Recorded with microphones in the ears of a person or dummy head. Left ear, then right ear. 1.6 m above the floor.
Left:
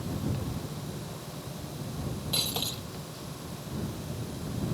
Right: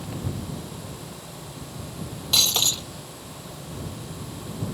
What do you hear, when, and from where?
2.3 s breaking glass: 50° right (ahead or behind)